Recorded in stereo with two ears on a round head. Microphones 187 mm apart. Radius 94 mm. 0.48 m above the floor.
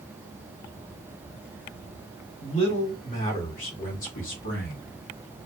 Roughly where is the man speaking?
Left.